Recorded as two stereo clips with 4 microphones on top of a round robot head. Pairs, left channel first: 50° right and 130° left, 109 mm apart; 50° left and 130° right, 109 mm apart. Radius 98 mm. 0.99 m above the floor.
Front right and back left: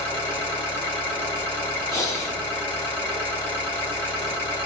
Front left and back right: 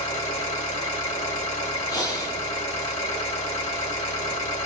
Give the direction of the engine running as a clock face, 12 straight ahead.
11 o'clock.